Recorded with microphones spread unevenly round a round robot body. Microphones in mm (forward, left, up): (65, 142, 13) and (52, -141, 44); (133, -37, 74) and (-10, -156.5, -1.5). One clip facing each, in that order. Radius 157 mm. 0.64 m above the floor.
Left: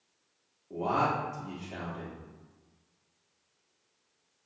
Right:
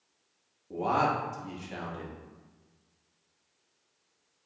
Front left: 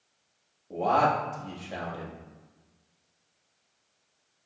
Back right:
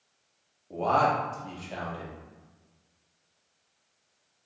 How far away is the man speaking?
About 1.5 m.